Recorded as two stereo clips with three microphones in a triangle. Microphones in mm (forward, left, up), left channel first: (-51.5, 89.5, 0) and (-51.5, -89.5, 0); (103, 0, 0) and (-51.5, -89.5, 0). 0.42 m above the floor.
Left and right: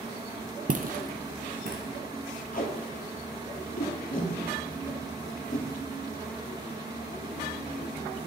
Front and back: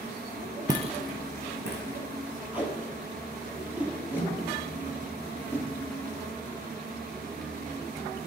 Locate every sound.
0.7 s footsteps: 85° right, 0.5 m; by 2.0 s 135° right, 2 m
2.5 s tape being pulled: 130° left, 2 m